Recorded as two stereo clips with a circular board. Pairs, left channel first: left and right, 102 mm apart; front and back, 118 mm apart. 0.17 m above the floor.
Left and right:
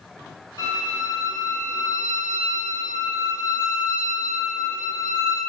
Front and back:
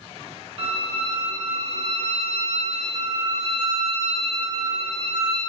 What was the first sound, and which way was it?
A violin, 145° left.